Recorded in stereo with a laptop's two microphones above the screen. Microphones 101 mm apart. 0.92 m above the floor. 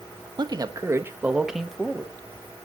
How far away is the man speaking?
About 1.0 m.